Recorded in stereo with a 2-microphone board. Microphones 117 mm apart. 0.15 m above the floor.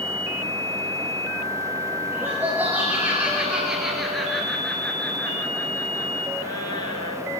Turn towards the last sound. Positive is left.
turn(degrees=40)  # may be behind; listen again after turning